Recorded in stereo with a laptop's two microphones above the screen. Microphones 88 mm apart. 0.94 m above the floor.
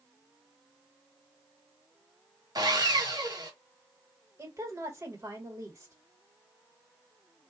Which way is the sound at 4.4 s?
35° right (ahead or behind).